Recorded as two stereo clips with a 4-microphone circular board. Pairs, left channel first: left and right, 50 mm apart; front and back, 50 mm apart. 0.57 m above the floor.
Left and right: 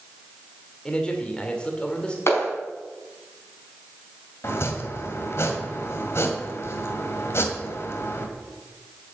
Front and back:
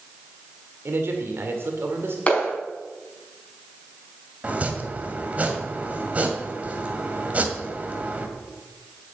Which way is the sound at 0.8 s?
160° left.